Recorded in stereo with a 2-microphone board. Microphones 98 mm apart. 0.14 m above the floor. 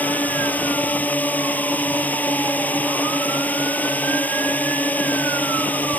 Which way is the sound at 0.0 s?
15° left (ahead or behind).